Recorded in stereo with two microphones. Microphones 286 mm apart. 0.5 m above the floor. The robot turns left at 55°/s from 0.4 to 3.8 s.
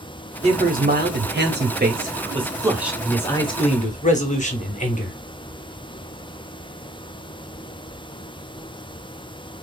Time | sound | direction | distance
0.4 | a man speaking | 40° right | 0.8 m